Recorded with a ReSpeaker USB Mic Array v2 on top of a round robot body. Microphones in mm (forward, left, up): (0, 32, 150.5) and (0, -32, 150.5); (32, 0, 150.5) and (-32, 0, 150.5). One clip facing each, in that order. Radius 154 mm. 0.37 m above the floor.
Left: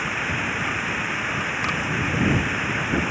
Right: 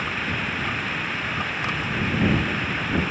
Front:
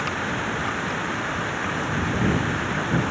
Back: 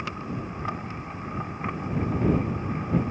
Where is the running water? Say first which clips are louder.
Left 1 dB, front 7 dB; 10° left.